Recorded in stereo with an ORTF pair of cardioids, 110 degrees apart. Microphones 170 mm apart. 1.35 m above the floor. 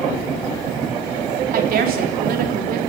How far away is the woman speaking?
About 4 m.